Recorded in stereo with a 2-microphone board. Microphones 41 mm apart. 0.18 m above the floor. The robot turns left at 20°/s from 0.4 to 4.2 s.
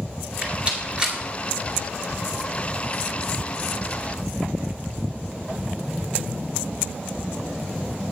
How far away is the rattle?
About 1.8 m.